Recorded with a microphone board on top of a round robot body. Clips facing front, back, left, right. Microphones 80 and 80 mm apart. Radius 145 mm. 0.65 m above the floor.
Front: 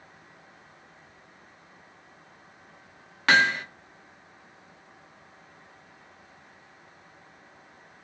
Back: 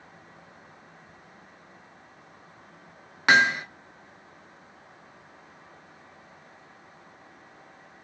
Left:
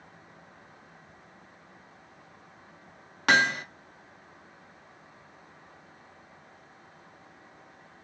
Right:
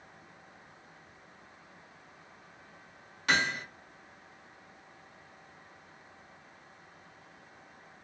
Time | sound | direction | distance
3.3 | hammering | 105° left | 0.7 m